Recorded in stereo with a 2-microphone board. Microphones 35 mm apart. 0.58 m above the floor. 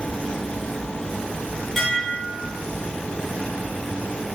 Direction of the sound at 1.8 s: 5° left (ahead or behind).